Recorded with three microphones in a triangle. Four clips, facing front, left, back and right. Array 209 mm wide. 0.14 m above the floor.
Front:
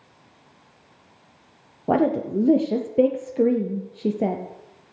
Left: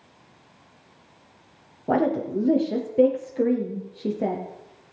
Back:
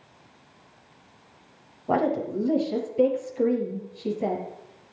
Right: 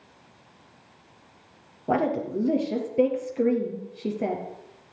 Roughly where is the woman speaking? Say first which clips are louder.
Left 2 dB, front 3 dB; ahead.